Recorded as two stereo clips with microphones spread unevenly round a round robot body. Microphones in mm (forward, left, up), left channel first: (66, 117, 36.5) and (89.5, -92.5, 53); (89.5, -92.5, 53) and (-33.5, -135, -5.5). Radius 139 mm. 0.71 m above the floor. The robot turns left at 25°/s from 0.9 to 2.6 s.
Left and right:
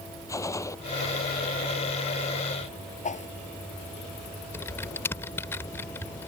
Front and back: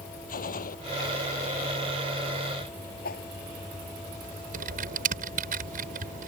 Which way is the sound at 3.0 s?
40° left.